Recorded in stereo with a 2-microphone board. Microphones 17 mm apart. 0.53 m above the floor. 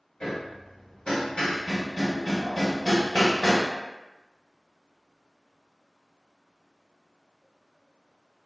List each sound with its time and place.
0.2 s hammering: 75° left (ahead or behind), 1.0 m